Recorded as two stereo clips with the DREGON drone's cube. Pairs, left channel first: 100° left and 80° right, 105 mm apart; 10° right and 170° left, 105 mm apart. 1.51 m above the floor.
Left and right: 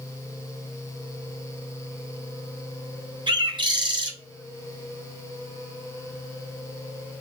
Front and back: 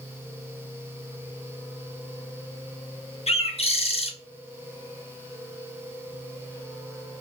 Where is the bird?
35° right, 0.5 m.